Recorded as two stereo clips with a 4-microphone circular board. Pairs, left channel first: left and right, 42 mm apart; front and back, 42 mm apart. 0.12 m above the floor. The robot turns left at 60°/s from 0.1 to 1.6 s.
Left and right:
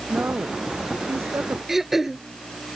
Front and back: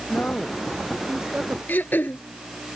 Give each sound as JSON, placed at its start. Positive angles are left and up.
{"t": 0.1, "sound": "a woman speaking", "azimuth_deg": -40}
{"t": 1.7, "sound": "throat clearing", "azimuth_deg": -10}